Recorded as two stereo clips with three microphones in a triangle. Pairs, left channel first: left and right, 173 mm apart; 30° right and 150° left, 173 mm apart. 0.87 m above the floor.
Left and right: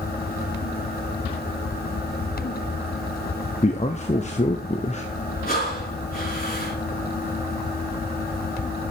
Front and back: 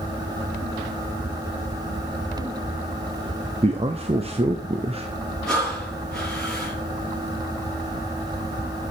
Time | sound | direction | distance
3.6 | a man speaking | 115° left | 0.9 m
5.5 | breathing | 55° left | 4 m